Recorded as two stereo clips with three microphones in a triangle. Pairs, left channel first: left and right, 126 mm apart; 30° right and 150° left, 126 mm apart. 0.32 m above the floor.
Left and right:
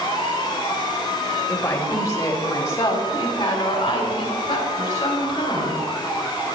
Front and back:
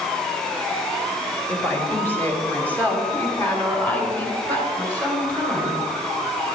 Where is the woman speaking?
30° left, 1.5 m; by 5.8 s 45° left, 6 m.